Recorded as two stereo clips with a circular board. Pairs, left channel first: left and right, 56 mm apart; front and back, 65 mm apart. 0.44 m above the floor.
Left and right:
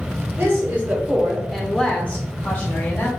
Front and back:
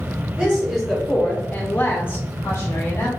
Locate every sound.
0.4 s a woman speaking: 105° right, 1.1 m; by 3.1 s 45° left, 1.7 m